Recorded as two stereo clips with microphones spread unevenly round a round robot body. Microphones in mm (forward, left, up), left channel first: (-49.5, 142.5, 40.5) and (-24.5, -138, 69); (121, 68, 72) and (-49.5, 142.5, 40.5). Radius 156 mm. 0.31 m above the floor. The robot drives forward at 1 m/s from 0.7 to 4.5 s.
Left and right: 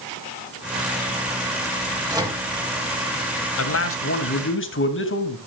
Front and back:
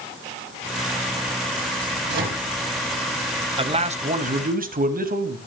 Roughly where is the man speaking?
Left.